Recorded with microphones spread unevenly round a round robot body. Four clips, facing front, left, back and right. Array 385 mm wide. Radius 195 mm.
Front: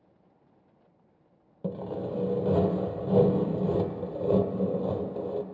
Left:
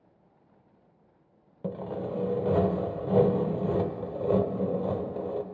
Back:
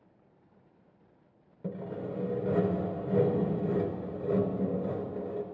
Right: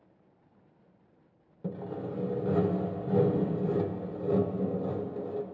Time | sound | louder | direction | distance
1.6 | sawing | left 3 dB, front 4 dB | 25° left | 0.7 m